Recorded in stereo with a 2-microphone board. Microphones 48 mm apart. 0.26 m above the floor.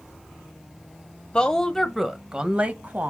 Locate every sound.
1.3 s a woman speaking: 20° left (ahead or behind), 1.0 m; by 3.1 s 35° right (ahead or behind), 1.2 m